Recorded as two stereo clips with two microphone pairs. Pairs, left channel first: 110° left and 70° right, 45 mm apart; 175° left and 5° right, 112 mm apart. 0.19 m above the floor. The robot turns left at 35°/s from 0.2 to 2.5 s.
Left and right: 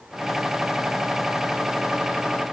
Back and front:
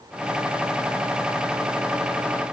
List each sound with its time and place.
Only background noise.